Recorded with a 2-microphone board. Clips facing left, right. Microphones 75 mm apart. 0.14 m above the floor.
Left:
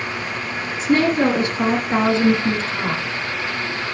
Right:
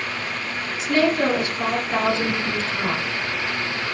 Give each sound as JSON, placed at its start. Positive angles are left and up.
{"t": 0.8, "sound": "a woman speaking", "side_deg": 35, "distance_m": 1.7}